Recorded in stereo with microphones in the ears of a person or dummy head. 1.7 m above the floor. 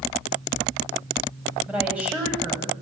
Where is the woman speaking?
5° right (ahead or behind), 9.5 m.